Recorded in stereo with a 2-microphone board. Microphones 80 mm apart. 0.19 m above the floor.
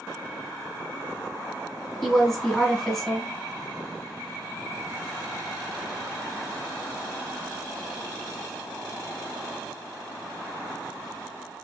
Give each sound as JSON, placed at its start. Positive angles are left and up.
{"t": 2.0, "sound": "a woman speaking", "side_deg": 5, "distance_m": 1.2}